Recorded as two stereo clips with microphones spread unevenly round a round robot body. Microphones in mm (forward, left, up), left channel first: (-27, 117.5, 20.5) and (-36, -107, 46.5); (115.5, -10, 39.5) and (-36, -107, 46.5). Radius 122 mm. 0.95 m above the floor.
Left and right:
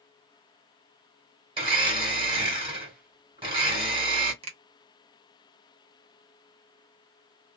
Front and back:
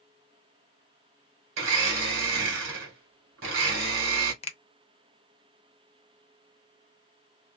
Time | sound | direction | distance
1.6 | a blender | 160° right | 1.4 m
4.4 | a finger snap | 25° right | 0.7 m